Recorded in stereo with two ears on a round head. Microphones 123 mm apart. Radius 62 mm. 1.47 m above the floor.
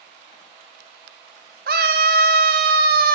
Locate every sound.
1.7 s a scream: 80° right, 3 m